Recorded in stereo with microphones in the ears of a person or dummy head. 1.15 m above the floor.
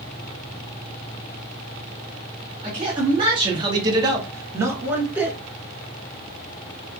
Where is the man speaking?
20° right (ahead or behind), 0.8 m; by 5.4 s 10° right (ahead or behind), 1.2 m.